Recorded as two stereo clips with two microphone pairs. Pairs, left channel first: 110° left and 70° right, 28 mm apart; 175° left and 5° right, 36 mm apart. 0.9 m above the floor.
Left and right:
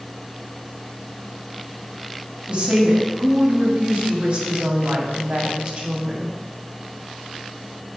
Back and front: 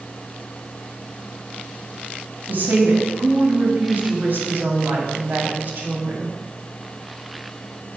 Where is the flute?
I don't hear a flute.